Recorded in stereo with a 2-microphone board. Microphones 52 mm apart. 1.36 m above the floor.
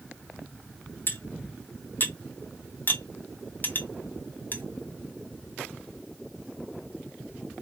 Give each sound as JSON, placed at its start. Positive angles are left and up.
{"t": 1.1, "sound": "cutlery clinking", "side_deg": 40, "distance_m": 0.7}